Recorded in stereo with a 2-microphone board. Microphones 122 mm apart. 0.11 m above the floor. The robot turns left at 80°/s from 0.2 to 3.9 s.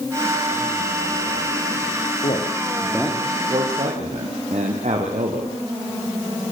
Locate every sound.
2.2 s a man speaking: 65° left (ahead or behind), 6 m; by 5.6 s 65° right (ahead or behind), 6 m